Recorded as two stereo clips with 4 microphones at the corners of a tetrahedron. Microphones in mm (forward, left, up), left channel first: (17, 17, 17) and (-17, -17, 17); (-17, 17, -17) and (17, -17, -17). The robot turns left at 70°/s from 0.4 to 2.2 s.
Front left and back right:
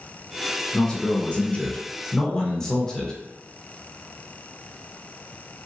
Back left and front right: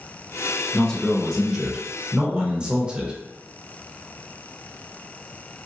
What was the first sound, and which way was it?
A man speaking, 95° left.